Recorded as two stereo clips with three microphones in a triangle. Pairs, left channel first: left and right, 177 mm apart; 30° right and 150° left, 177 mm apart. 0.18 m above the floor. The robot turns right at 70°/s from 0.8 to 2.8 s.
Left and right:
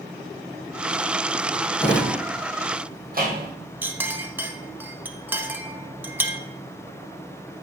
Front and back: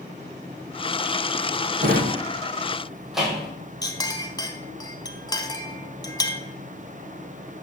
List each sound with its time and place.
1.8 s a drawer: 165° left, 1.8 m; by 3.5 s 120° right, 1.8 m
3.8 s a clink: 30° right, 0.6 m